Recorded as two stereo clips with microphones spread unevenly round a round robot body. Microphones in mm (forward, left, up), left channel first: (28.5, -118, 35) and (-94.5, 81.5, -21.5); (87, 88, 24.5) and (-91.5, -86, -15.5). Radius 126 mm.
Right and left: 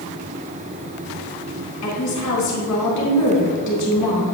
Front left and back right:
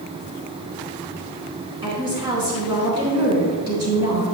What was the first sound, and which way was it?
A woman speaking, 65° right.